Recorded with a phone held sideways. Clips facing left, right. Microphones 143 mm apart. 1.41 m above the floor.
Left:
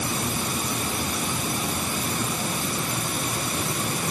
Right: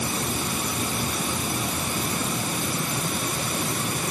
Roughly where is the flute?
No flute in this recording.